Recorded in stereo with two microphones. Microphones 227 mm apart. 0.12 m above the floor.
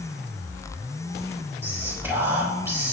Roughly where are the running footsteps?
No running footsteps in this recording.